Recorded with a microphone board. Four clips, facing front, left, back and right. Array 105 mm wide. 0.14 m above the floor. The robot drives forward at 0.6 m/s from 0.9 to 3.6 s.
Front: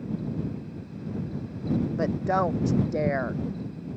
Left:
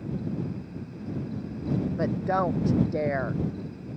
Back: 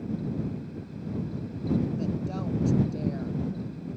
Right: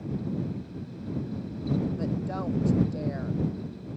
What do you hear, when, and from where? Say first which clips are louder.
2.0 s a woman speaking: left 6 dB, front 7 dB; 35° left; by 3.4 s 40° left